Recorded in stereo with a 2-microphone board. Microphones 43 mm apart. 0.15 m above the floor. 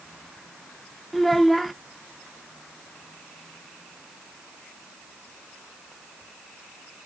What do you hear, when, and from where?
1.1 s a child speaking: centre (ahead or behind), 0.8 m